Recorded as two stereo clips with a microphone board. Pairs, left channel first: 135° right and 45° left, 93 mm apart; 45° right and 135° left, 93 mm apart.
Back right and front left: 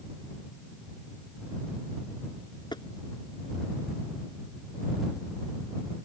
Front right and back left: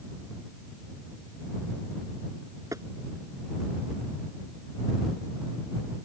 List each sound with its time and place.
2.7 s tapping: 170° right